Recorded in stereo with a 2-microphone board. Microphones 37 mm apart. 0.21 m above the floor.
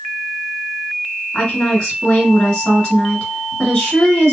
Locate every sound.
1.3 s a woman speaking: 20° left (ahead or behind), 1.5 m